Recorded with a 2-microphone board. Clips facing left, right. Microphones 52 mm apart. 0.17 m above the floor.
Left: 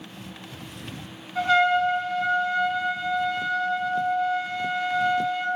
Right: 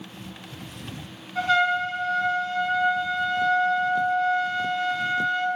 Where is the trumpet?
5° left (ahead or behind), 0.5 m.